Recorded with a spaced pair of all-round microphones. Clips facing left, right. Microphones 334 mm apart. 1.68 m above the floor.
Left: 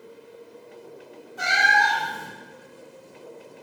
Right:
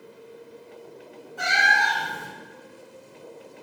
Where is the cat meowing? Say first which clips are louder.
Left 2 dB; 25° left (ahead or behind), 1.0 m.